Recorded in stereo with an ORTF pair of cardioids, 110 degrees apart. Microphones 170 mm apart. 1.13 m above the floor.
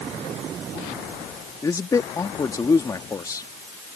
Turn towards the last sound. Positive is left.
turn(degrees=20)